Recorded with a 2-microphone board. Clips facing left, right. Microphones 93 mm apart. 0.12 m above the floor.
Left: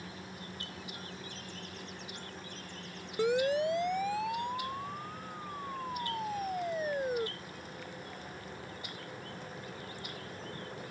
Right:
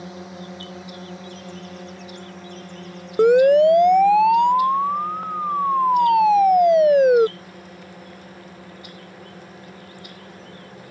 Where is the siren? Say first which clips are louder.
Right 17 dB; 50° right (ahead or behind); by 7.3 s 70° right (ahead or behind).